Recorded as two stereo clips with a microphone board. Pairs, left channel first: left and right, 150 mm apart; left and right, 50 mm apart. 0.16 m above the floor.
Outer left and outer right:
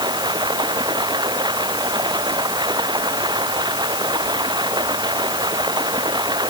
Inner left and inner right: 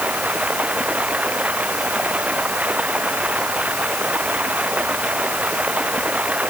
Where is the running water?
30° right (ahead or behind).